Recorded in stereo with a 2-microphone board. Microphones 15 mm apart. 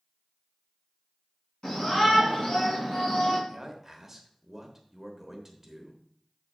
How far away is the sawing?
No sawing in this recording.